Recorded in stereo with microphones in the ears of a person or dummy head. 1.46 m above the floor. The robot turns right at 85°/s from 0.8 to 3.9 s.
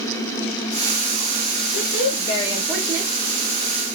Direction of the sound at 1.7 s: 85° left.